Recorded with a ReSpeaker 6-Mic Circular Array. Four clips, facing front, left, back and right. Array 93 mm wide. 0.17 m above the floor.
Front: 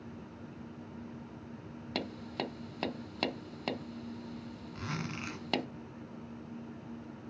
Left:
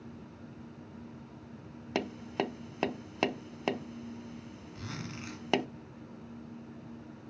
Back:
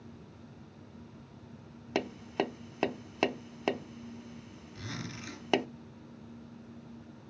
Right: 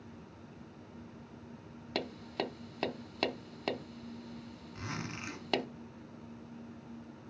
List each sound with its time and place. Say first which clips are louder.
1.9 s tapping: left 4 dB, back 6 dB; 140° left, 0.6 m
4.8 s a zipper: right 1 dB, front 3 dB; 20° right, 2 m